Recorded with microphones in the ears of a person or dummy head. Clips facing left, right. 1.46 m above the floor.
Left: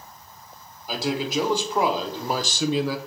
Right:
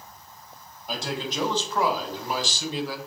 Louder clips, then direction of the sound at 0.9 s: Left 5 dB; 5° left (ahead or behind).